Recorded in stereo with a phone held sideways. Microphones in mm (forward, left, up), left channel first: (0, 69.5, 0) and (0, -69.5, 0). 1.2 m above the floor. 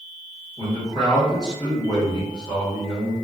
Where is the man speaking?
30° left (ahead or behind), 1.5 m.